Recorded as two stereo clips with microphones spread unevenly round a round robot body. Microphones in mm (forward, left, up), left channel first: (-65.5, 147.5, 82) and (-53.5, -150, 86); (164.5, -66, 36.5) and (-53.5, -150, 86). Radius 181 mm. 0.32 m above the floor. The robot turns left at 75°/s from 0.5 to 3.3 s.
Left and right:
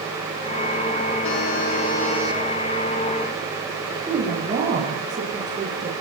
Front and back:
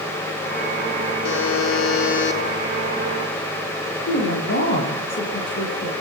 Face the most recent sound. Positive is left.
turn(degrees=-10)